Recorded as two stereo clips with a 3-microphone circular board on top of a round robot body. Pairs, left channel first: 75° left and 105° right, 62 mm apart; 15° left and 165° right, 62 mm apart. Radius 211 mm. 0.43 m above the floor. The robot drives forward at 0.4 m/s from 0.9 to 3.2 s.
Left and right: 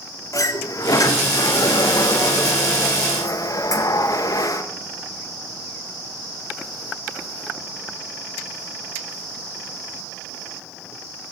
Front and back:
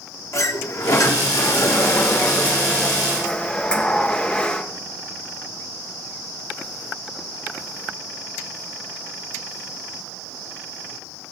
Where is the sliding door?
50° left, 1.6 m; by 4.6 s 90° left, 1.2 m.